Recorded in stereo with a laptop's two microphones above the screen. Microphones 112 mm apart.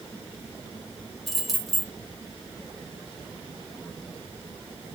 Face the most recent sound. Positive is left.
turn(degrees=0)  # may be behind; listen again after turning